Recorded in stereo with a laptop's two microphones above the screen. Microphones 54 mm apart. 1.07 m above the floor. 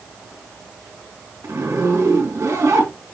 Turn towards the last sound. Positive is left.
turn(degrees=-85)